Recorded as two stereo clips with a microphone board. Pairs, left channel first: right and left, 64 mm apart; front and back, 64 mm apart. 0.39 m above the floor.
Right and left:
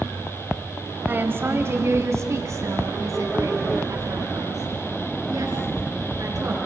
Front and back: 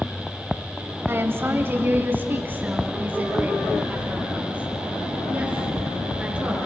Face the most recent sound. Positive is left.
turn(degrees=110)